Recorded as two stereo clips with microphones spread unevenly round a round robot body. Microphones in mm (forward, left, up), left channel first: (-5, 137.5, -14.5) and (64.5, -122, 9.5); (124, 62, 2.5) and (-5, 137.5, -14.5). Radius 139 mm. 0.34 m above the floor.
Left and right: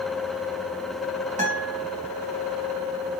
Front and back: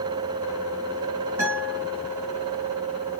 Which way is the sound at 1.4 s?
135° right.